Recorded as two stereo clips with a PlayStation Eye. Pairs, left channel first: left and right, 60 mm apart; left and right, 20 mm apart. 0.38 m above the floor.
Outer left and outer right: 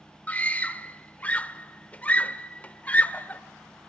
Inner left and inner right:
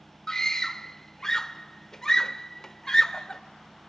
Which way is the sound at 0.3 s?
25° left (ahead or behind).